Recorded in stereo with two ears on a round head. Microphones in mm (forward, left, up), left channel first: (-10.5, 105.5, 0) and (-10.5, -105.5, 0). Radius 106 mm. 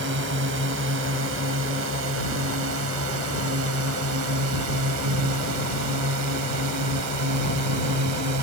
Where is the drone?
50° right (ahead or behind); by 8.4 s 85° right.